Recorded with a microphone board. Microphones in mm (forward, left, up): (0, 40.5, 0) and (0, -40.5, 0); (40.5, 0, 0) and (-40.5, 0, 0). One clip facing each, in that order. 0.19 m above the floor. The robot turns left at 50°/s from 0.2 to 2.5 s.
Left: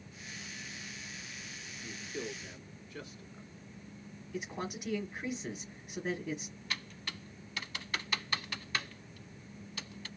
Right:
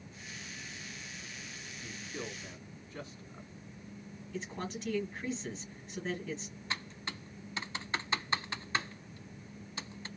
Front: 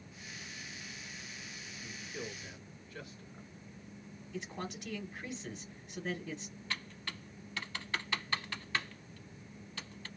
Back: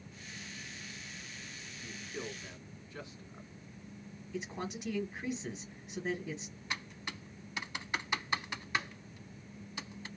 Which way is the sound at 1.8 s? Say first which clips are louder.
Left 2 dB, back 2 dB; 90° right.